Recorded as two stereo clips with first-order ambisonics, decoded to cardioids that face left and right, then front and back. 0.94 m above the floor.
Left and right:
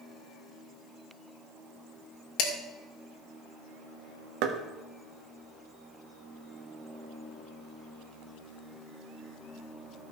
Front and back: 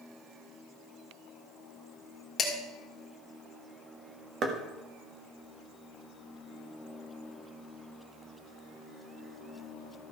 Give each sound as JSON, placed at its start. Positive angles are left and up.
{"t": 2.4, "sound": "dishes clattering", "azimuth_deg": 70, "distance_m": 2.5}
{"t": 4.4, "sound": "knocking", "azimuth_deg": -120, "distance_m": 1.4}